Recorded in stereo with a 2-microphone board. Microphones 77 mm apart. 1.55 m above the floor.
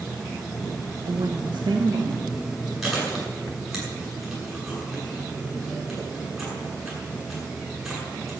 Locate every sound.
1.1 s a woman speaking: 75° right (ahead or behind), 1.1 m; by 2.7 s 80° right, 2.5 m
2.8 s chewing: centre (ahead or behind), 8 m